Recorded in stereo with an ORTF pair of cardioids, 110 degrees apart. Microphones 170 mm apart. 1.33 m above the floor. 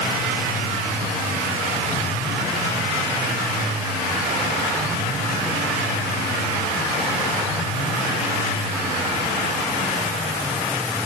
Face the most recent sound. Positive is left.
No sound to turn to.